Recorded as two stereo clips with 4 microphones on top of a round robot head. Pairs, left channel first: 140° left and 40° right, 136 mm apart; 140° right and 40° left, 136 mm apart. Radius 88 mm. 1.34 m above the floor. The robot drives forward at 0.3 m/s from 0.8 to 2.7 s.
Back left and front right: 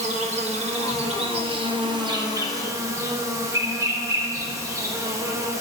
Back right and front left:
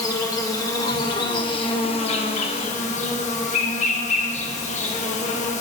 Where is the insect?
75° right, 1.1 m; by 5.6 s 105° right, 1.1 m.